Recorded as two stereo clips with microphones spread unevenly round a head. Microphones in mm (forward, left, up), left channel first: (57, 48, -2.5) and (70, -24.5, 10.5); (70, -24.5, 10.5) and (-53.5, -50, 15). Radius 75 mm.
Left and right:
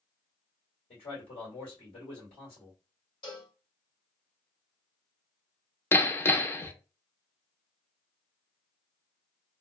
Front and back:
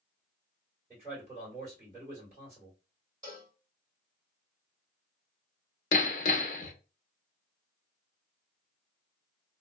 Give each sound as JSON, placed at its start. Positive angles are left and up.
{"t": 0.9, "sound": "a man speaking", "azimuth_deg": 110, "distance_m": 2.0}
{"t": 3.2, "sound": "a cowbell", "azimuth_deg": 125, "distance_m": 2.5}
{"t": 5.9, "sound": "hammering", "azimuth_deg": 35, "distance_m": 0.6}